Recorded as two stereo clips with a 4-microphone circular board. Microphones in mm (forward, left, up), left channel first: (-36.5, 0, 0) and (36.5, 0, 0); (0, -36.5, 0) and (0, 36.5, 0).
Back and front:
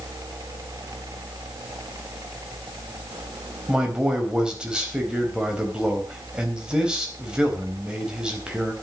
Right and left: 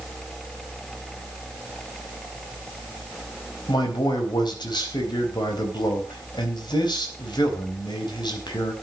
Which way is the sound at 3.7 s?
80° right.